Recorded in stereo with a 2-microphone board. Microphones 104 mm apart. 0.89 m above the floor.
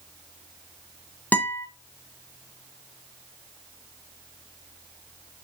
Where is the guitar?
15° left (ahead or behind), 0.9 m.